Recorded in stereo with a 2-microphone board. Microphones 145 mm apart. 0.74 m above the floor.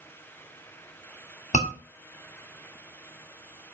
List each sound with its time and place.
1.5 s a scream: 65° left (ahead or behind), 2.5 m